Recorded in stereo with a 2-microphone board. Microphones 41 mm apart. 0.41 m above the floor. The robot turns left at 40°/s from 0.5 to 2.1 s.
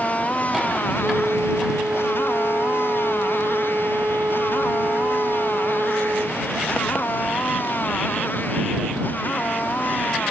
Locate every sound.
0.0 s a motorcycle: 35° left (ahead or behind); by 10.3 s 50° left (ahead or behind)
1.0 s a flute: 40° right; by 6.4 s 85° right